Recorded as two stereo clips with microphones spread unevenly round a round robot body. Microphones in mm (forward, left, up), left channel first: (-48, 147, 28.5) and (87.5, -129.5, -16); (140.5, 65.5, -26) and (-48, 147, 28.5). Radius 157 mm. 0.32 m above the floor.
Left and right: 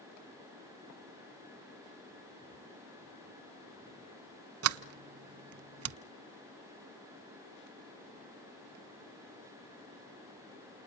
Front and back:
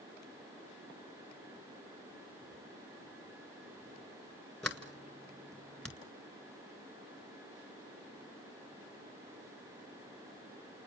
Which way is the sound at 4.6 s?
115° right.